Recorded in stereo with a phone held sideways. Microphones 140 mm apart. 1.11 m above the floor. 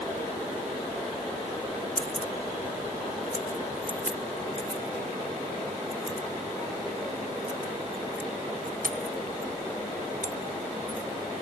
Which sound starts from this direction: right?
Keys jangling, at 2.0 s.